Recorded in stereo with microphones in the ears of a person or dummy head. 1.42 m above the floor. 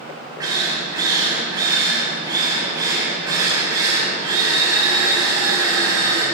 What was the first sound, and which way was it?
A drill, 15° right (ahead or behind).